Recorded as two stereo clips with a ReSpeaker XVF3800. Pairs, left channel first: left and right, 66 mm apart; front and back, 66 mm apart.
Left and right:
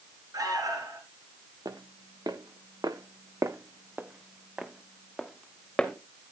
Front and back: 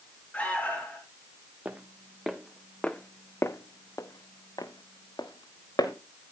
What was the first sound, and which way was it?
An alarm, 70° right.